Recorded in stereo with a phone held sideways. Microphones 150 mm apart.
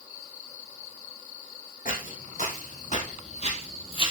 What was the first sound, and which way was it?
Footsteps, 65° left (ahead or behind).